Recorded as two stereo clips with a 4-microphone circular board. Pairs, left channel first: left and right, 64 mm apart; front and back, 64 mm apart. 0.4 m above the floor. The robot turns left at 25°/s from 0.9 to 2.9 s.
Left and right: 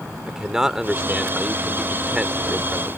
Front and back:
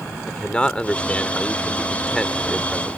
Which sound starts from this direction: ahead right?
A man speaking, at 0.3 s.